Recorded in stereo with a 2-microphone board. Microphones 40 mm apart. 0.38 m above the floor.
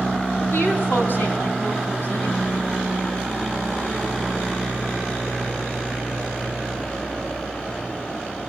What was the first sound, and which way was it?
A woman speaking, 60° left (ahead or behind).